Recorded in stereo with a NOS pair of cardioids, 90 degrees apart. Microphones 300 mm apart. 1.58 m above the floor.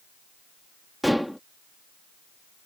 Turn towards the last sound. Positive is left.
turn(degrees=0)